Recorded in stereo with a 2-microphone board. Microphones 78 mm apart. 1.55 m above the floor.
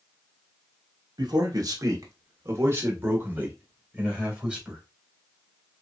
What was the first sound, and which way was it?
A man speaking, 70° right (ahead or behind).